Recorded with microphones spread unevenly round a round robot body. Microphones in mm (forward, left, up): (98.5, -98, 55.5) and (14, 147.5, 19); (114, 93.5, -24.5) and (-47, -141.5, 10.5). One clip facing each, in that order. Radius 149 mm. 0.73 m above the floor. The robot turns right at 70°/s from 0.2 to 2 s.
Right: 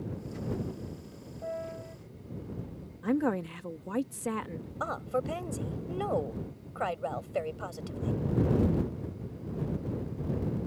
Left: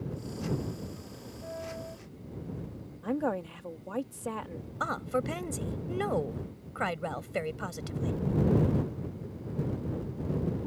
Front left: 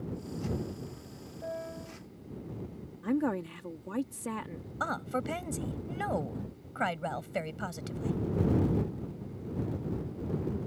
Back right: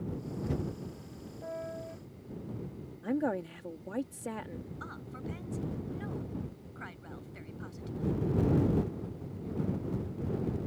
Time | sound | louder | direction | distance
1.4 | a piano | right 3 dB, front left 1 dB | 50° right | ?
3.0 | a woman speaking | right 3 dB, front left 2 dB | 10° right | ?
4.8 | a woman speaking | left 1 dB, front left 8 dB | 50° left | ?